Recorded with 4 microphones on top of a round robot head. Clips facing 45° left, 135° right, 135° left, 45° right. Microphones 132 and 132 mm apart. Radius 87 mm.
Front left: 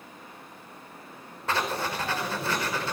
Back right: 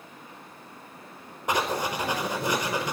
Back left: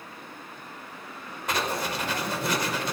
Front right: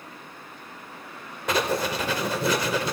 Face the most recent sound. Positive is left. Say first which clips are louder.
# back right 2 dB, front right 4 dB
turn(degrees=-60)